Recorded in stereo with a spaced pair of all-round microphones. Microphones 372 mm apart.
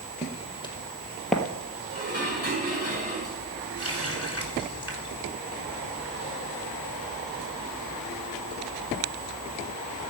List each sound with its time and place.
0.2 s footsteps: 20° left (ahead or behind), 2.5 m; by 1.4 s centre (ahead or behind), 2 m
1.9 s dishes clattering: 40° left (ahead or behind), 6 m
3.8 s a running tap: 40° left (ahead or behind), 3.5 m